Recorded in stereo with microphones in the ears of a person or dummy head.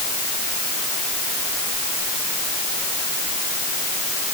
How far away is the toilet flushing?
I don't hear a toilet flushing.